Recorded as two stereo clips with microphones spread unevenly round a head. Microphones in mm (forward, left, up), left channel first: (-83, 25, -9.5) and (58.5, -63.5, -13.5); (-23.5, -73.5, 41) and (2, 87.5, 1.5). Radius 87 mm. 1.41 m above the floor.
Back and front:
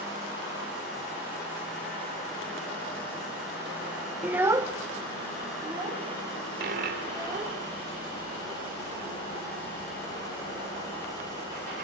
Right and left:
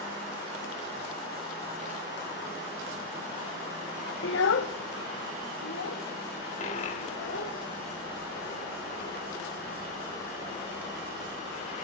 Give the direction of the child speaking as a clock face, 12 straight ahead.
4 o'clock.